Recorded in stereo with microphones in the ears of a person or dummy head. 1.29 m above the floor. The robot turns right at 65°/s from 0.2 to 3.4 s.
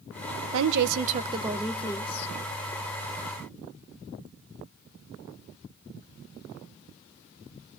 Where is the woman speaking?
75° right, 0.7 m; by 2.3 s 40° left, 0.7 m.